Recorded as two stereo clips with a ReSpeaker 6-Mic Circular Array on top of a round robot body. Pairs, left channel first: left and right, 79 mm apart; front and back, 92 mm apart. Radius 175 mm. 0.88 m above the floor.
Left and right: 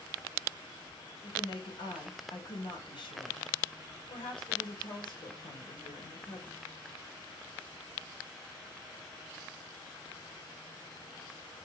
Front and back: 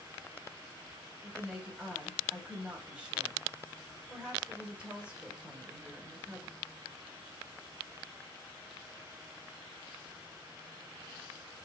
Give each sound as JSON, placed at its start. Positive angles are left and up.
{"t": 1.2, "sound": "a woman speaking", "azimuth_deg": 100, "distance_m": 4.0}